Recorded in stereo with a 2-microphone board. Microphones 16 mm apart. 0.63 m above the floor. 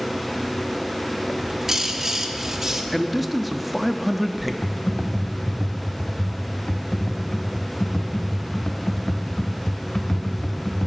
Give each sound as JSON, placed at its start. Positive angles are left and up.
{"t": 1.3, "sound": "a bird", "side_deg": -30, "distance_m": 0.9}
{"t": 2.9, "sound": "a man speaking", "side_deg": 0, "distance_m": 0.6}
{"t": 4.6, "sound": "typing on a keyboard", "side_deg": 70, "distance_m": 0.7}